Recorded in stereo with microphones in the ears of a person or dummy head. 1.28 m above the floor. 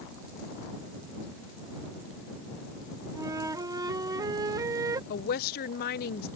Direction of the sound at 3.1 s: 25° right (ahead or behind).